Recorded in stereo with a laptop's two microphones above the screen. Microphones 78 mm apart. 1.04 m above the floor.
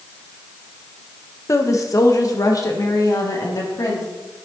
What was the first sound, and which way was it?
A woman speaking, 40° left (ahead or behind).